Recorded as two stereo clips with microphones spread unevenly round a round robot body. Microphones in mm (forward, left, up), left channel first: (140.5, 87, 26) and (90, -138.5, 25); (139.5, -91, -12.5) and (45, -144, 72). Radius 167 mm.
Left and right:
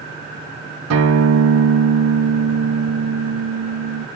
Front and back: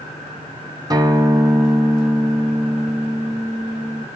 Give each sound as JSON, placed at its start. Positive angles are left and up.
{"t": 0.9, "sound": "a guitar", "azimuth_deg": -90, "distance_m": 0.9}